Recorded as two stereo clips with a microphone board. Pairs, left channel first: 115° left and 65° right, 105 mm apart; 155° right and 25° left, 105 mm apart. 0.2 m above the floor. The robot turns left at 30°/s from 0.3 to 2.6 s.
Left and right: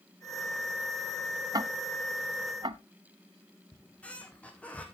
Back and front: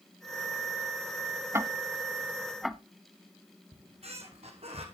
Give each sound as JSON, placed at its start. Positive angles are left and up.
{"t": 1.5, "sound": "ticking", "azimuth_deg": -35, "distance_m": 0.6}
{"t": 3.7, "sound": "a squeak", "azimuth_deg": 35, "distance_m": 1.9}